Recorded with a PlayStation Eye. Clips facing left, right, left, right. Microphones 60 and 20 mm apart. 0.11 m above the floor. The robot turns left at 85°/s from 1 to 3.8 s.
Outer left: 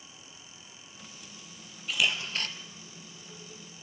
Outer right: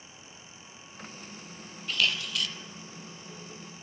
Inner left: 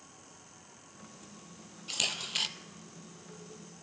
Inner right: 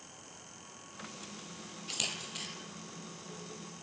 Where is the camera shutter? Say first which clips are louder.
Even, inner left 5 dB; 175° left, 0.6 m; by 2.5 s 125° left, 0.6 m.